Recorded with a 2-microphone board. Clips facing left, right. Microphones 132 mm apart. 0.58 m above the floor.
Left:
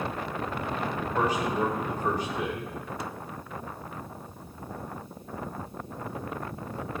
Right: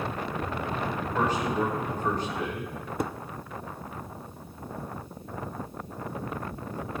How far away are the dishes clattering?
About 0.5 m.